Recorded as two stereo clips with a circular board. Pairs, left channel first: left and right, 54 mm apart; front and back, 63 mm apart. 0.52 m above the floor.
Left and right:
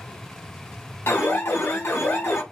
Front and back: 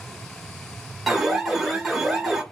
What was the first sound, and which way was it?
An alarm, 95° left.